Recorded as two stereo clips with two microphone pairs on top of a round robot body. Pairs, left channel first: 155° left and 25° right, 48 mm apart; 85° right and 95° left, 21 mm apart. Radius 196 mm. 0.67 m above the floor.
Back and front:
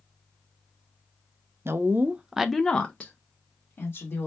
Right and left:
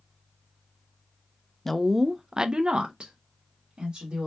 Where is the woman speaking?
25° right, 0.6 m; by 4.3 s 120° left, 1.2 m.